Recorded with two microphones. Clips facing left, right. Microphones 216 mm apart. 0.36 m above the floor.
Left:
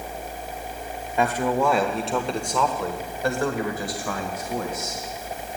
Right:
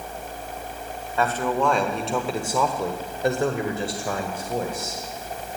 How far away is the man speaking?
About 1.3 m.